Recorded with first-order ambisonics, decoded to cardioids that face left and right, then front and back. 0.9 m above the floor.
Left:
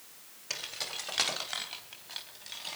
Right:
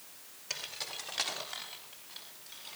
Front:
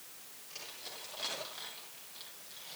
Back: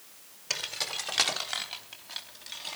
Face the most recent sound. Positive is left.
turn(degrees=140)